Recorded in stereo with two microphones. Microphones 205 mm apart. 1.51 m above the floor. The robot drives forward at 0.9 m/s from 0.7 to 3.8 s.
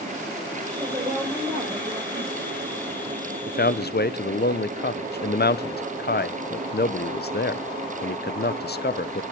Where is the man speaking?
45° left (ahead or behind), 0.6 m; by 9.2 s 55° left (ahead or behind), 0.5 m.